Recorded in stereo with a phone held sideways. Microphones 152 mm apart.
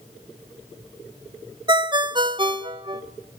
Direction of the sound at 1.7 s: 30° right (ahead or behind).